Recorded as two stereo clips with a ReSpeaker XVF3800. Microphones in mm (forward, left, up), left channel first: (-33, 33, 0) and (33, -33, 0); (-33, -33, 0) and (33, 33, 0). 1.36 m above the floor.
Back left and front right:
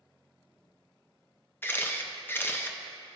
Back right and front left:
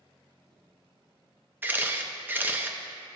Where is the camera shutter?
90° left, 0.6 m.